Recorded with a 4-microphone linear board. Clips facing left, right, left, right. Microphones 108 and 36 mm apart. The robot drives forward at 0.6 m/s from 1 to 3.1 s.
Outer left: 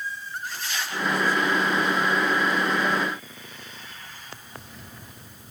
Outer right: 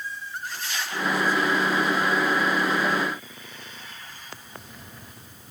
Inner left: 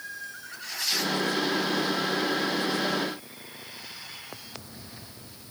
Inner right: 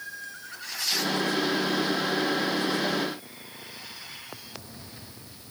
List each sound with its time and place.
Only background noise.